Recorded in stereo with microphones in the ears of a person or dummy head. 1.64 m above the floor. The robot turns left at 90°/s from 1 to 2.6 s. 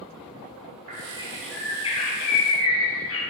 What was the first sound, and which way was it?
A bird, 135° right.